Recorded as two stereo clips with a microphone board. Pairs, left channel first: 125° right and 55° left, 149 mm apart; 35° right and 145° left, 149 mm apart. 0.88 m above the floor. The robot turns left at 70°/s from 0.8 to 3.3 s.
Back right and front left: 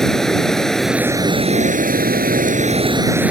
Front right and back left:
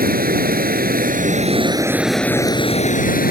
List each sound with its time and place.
0.0 s running water: 150° left; by 3.3 s 25° right